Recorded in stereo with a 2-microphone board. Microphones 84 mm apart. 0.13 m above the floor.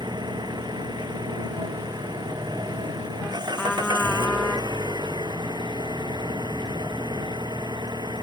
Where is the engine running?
60° right (ahead or behind).